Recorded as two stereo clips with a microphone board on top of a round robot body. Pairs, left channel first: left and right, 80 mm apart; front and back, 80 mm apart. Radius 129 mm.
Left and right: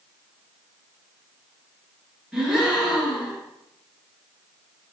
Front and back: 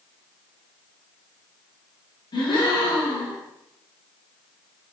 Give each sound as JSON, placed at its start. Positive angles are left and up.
{"t": 2.3, "sound": "a gasp", "azimuth_deg": -5, "distance_m": 1.4}